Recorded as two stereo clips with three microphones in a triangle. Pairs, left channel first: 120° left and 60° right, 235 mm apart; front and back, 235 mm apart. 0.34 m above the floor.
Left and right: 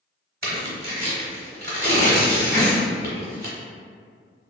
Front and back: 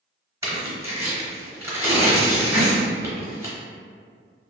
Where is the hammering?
40° left, 1.6 m.